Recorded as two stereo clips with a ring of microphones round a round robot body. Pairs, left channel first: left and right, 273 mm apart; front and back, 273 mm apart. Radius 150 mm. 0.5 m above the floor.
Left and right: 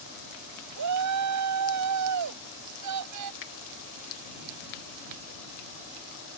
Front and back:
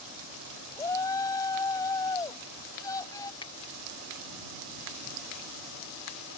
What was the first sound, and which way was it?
A shout, 80° right.